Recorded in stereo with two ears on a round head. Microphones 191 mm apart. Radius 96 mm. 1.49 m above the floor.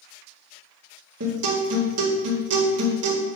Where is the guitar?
75° right (ahead or behind), 2 m.